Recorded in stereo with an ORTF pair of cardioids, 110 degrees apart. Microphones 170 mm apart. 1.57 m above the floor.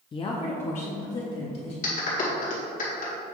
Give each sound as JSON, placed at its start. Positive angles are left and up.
{"t": 0.1, "sound": "a woman speaking", "azimuth_deg": 30, "distance_m": 0.6}
{"t": 1.8, "sound": "a clap", "azimuth_deg": 50, "distance_m": 1.9}